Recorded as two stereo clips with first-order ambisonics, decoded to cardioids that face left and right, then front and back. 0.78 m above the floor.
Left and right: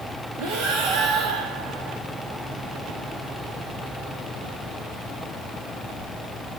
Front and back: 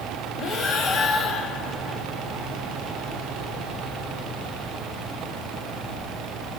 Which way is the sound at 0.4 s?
65° right.